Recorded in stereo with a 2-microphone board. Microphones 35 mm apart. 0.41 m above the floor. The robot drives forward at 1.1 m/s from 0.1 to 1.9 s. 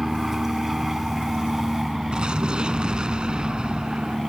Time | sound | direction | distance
0.0 | an aircraft | 10° right (ahead or behind) | ?
2.1 | an explosion | 25° right (ahead or behind) | ?